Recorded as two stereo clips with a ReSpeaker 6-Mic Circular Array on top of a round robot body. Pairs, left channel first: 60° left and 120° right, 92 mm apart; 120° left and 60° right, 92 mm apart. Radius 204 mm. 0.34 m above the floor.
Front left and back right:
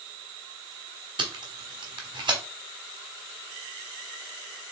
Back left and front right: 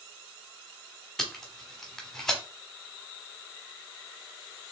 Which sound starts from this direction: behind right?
Tape being pulled, at 1.2 s.